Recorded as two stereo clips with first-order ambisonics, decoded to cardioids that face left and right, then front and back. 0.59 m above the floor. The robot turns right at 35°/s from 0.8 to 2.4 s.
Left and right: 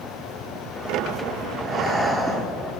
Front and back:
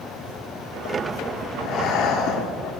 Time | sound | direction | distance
1.6 | breathing | 25° right | 1.3 m